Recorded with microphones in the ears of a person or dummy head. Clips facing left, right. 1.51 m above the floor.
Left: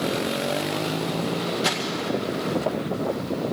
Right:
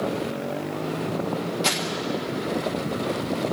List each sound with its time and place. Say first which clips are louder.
1.6 s crumpling: left 1 dB; 15° left (ahead or behind), 1.6 m